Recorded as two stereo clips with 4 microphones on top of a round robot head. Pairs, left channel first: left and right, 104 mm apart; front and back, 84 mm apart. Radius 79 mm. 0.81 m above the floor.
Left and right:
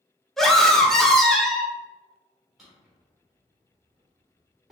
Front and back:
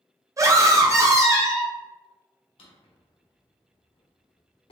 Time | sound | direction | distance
0.4 | a scream | 175° left | 0.8 m
2.6 | a drawer | straight ahead | 1.1 m